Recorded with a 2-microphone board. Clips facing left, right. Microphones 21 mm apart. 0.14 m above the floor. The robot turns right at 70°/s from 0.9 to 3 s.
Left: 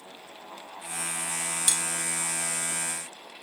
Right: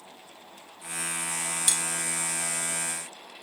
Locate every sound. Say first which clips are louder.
1.7 s cutlery clinking: even; centre (ahead or behind), 0.6 m; by 1.8 s 5° right (ahead or behind), 0.6 m